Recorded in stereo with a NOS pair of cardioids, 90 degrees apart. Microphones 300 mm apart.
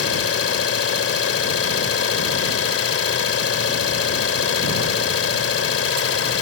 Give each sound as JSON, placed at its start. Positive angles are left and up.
{"t": 0.0, "sound": "an engine running", "azimuth_deg": 45}